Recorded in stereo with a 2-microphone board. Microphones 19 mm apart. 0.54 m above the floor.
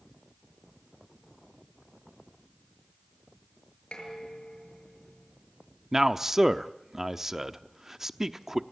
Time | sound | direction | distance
3.9 | dishes clattering | 70° left (ahead or behind) | 7 m
5.9 | a man speaking | 25° right (ahead or behind) | 0.9 m